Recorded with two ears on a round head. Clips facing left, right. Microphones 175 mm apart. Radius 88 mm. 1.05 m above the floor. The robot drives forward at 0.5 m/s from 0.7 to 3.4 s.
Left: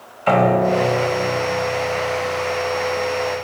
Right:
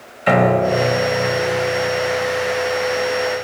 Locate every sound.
0.3 s a piano: 15° right (ahead or behind), 1.2 m; by 3.4 s 10° right (ahead or behind), 2.5 m